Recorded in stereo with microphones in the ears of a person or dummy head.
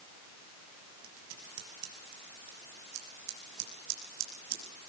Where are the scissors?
75° right (ahead or behind), 6 m.